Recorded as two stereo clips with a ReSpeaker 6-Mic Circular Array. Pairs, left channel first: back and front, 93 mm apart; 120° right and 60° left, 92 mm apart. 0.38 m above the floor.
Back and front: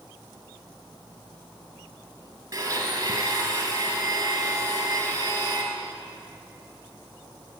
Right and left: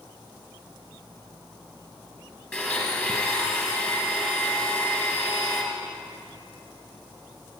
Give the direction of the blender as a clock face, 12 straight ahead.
1 o'clock.